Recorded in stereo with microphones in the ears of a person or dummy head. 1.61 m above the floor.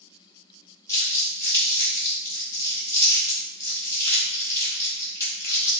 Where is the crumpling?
15° left (ahead or behind), 2 m.